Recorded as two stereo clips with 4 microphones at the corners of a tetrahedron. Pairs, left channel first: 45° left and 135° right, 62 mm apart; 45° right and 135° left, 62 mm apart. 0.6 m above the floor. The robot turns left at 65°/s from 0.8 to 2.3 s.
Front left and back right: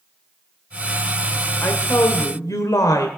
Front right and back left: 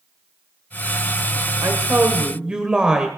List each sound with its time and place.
1.6 s a woman speaking: 105° left, 1.8 m; by 3.1 s 60° left, 1.8 m